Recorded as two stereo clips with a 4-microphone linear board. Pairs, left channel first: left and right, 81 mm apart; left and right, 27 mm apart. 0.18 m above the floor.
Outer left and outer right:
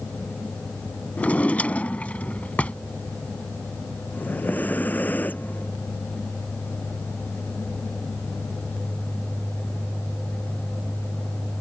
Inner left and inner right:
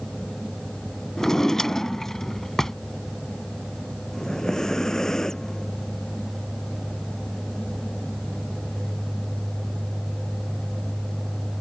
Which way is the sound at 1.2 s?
20° left (ahead or behind).